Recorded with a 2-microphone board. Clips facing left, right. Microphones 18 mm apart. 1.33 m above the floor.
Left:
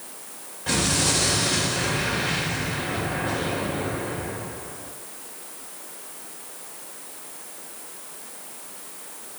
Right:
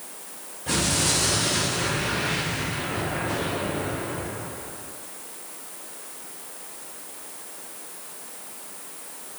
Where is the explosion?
35° left (ahead or behind), 5 m.